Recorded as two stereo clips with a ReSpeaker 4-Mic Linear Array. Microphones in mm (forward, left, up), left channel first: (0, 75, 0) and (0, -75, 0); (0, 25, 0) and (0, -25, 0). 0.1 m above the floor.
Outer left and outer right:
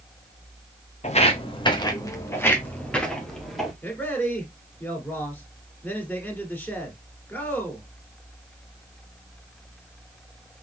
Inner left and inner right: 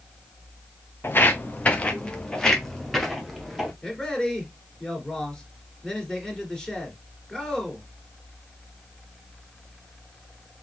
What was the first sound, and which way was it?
Footsteps, 50° left (ahead or behind).